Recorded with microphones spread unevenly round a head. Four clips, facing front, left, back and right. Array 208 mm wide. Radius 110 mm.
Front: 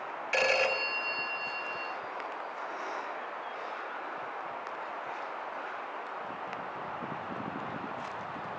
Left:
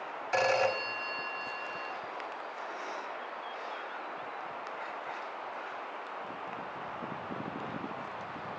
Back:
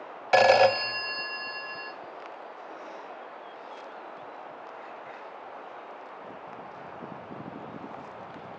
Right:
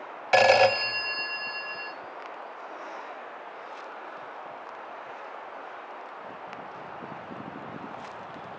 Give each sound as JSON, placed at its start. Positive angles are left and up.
{"t": 0.3, "sound": "a phone ringing", "azimuth_deg": -120, "distance_m": 0.5}